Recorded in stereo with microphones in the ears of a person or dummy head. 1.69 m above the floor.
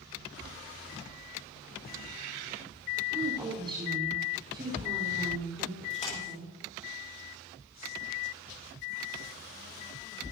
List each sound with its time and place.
3.1 s a woman speaking: 25° right (ahead or behind), 5 m
5.9 s a splash: 40° left (ahead or behind), 6.5 m